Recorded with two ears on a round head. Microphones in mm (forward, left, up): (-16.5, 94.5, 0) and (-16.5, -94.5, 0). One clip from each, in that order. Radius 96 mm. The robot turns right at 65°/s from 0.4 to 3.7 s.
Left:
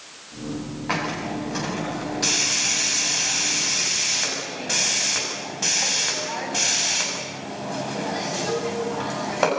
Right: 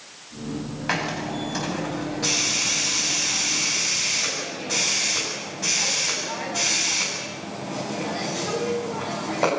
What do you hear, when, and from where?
0.9 s a hiss: 55° right (ahead or behind), 8.5 m; by 9.5 s 55° left (ahead or behind), 8.5 m